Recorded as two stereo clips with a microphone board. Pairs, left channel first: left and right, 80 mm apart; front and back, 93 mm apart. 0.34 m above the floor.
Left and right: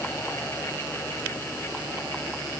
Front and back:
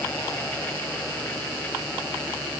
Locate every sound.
Only background noise.